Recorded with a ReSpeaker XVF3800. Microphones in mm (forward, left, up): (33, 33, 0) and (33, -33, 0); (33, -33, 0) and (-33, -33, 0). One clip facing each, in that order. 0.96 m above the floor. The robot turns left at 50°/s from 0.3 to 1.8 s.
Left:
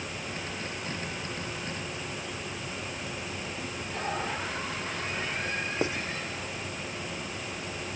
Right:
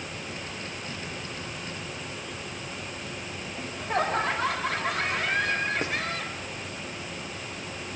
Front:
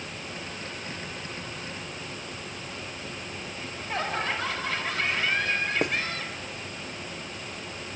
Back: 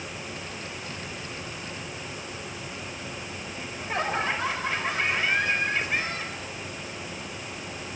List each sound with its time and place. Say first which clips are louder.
3.6 s laughter: right 11 dB, back 2 dB; 110° right, 4.5 m
5.8 s writing: left 1 dB, front 2 dB; 25° left, 1.2 m